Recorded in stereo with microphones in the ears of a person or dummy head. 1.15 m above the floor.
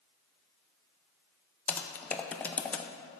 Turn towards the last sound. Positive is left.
turn(degrees=15)  # may be behind; listen again after turning